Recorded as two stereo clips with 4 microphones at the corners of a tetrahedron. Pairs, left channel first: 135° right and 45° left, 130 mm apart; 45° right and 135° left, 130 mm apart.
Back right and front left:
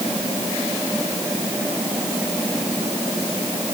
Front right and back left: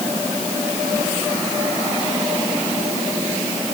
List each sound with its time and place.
Only background noise.